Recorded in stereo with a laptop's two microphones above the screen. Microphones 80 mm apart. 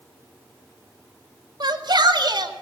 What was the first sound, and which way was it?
A shout, 70° right (ahead or behind).